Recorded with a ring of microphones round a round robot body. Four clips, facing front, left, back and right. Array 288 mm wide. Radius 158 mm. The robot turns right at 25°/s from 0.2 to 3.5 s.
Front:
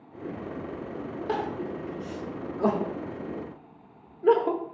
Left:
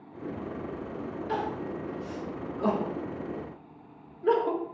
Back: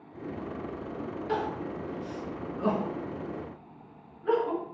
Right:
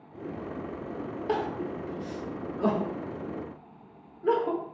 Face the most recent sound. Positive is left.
turn(degrees=5)